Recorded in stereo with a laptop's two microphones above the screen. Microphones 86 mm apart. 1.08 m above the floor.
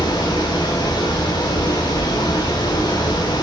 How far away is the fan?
About 3.5 m.